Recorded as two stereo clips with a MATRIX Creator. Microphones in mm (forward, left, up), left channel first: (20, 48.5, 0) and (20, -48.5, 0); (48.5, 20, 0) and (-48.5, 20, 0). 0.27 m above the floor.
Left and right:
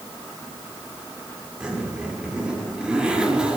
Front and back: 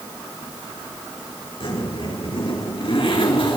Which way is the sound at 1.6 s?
10° right.